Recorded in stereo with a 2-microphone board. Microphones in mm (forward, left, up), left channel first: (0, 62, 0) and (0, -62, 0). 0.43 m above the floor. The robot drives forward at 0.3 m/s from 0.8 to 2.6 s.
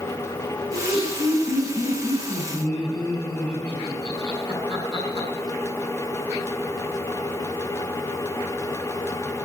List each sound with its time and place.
0.7 s laughter: 40° right (ahead or behind), 6 m; by 5.3 s 45° right (ahead or behind), 5.5 m